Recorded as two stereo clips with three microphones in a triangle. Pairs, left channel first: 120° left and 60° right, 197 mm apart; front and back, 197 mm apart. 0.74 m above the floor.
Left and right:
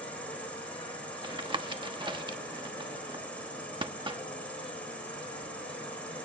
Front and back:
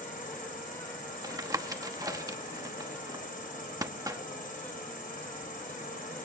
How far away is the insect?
About 5 m.